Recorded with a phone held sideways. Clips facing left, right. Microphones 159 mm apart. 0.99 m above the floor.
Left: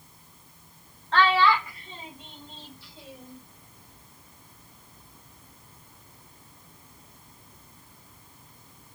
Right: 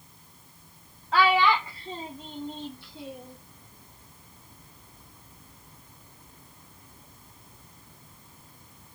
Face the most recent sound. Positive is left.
turn(degrees=-65)  # may be behind; listen again after turning